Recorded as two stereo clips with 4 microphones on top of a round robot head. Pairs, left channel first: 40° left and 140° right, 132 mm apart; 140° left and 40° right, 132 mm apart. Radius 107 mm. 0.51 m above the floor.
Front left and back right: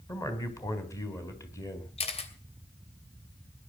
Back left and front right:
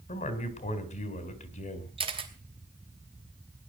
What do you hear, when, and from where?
0.1 s a man speaking: 110° left, 4 m
2.0 s a camera shutter: 5° left, 3 m